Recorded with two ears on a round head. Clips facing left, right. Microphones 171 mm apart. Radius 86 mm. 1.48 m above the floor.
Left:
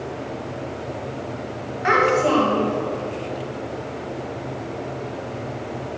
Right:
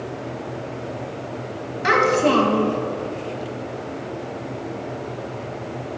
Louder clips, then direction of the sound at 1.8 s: Right 1 dB; 45° right (ahead or behind).